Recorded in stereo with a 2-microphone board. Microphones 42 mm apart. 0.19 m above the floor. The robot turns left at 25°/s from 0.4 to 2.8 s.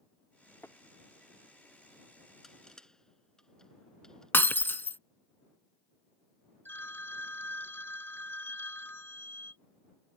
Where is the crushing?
10° left (ahead or behind); by 4.3 s 15° left (ahead or behind).